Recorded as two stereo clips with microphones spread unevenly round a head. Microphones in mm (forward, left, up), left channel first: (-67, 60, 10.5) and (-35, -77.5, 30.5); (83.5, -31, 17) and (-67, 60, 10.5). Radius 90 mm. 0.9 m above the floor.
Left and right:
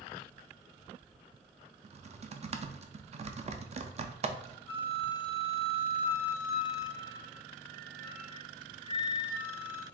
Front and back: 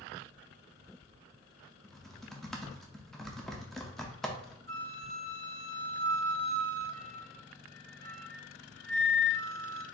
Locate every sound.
1.8 s typing on a keyboard: 120° right, 0.5 m
4.7 s a flute: 40° left, 1.3 m